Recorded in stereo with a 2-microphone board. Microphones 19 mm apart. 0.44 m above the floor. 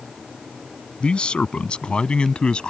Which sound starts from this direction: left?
A man speaking, at 1.0 s.